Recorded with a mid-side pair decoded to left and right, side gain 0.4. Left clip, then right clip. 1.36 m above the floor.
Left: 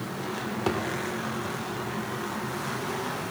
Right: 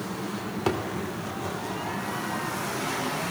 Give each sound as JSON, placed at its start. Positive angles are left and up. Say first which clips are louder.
{"t": 0.7, "sound": "a thud", "louder": "right 1 dB", "azimuth_deg": -15, "distance_m": 2.0}